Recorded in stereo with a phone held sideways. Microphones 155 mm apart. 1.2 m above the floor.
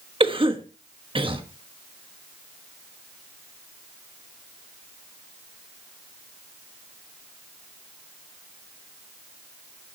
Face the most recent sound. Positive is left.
turn(degrees=-35)  # may be behind; listen again after turning